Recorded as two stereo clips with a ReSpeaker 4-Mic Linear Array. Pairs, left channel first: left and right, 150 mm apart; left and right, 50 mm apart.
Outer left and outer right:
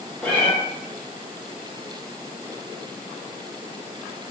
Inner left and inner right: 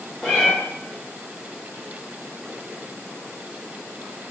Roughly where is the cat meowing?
Centre.